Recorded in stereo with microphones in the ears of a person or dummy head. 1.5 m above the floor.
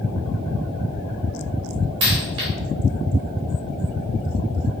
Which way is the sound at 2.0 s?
25° right (ahead or behind).